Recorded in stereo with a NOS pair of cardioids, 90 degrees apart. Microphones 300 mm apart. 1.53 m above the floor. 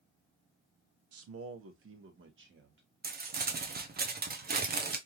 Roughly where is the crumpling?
Ahead right.